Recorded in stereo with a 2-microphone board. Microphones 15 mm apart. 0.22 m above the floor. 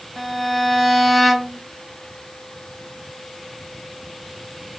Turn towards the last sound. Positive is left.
turn(degrees=-5)  # may be behind; listen again after turning